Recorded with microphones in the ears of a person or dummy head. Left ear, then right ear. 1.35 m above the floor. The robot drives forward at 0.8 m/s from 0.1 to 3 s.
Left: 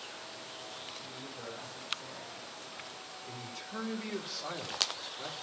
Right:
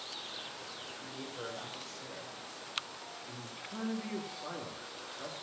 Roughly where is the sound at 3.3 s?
Centre.